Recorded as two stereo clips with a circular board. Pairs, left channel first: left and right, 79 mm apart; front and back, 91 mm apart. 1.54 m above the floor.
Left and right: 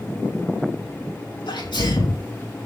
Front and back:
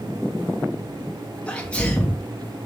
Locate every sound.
1.5 s a sneeze: 75° left, 2.5 m